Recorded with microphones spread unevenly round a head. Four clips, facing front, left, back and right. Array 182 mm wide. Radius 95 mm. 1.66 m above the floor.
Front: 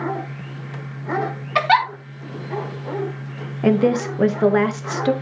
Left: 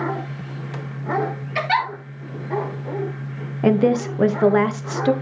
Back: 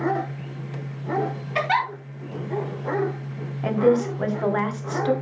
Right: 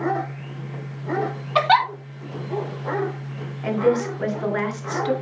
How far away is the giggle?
About 2.5 m.